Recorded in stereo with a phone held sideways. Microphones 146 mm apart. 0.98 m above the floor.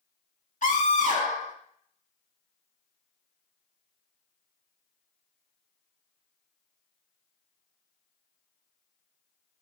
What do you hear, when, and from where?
0.6 s a scream: 60° left (ahead or behind), 1.9 m